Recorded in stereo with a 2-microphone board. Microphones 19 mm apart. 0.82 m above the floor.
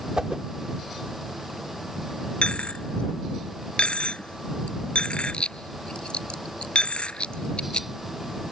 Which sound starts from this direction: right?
A whoosh, at 0.2 s.